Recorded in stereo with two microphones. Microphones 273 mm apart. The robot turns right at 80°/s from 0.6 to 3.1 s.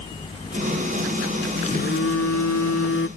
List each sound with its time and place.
1.6 s a phone buzzing: 25° left; by 3.1 s 140° left